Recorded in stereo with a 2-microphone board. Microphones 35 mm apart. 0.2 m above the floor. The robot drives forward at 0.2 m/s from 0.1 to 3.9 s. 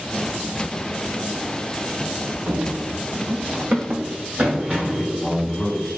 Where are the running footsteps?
75° right (ahead or behind), 1.0 m; by 5.1 s 25° right (ahead or behind), 1.6 m.